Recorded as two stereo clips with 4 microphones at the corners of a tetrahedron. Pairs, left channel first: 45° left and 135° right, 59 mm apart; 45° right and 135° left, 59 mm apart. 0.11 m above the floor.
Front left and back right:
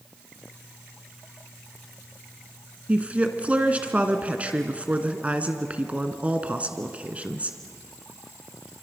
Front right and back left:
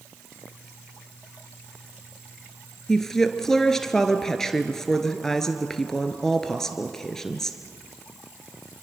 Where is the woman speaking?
115° right, 1.8 m.